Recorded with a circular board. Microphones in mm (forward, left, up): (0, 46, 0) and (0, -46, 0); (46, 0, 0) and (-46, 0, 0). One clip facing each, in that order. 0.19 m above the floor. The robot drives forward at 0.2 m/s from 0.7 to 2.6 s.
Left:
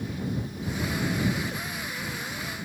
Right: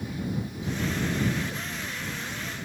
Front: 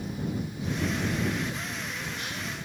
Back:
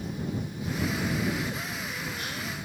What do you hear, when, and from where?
Only background noise.